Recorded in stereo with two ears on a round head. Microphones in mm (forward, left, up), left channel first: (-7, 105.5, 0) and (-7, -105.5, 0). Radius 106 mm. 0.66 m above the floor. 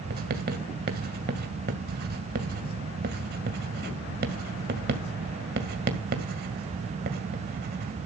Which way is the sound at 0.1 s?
45° right (ahead or behind).